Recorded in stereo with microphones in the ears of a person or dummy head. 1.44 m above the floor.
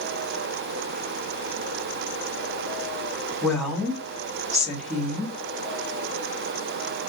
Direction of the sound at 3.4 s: 5° right (ahead or behind).